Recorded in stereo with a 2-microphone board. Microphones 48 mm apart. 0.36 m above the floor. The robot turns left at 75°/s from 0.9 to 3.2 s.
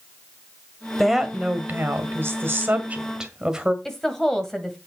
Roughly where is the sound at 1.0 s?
Ahead.